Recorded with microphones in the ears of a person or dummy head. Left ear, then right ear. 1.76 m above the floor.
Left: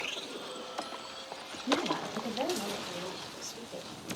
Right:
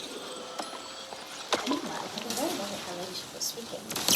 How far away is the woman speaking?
About 1.0 m.